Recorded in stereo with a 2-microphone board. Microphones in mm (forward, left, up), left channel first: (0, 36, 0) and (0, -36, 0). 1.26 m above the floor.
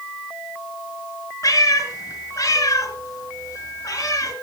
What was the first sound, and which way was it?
A cat meowing, 45° left (ahead or behind).